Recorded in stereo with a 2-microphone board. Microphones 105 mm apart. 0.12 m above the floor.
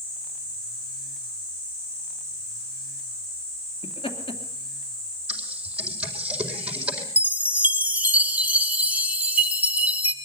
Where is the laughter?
55° left (ahead or behind), 2.5 m.